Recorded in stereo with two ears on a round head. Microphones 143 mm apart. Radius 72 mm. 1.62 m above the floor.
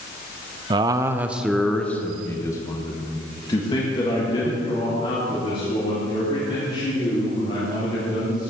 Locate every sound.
0.7 s a man speaking: 30° right (ahead or behind), 0.6 m; by 8.5 s 35° left (ahead or behind), 4 m